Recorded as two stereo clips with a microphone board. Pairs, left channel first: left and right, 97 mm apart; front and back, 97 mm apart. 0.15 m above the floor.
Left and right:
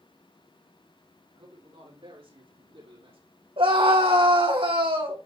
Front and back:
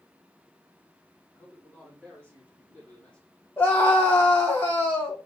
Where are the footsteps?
No footsteps in this recording.